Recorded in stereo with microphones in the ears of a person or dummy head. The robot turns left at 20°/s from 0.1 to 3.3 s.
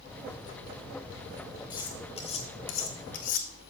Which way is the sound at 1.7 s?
30° left (ahead or behind).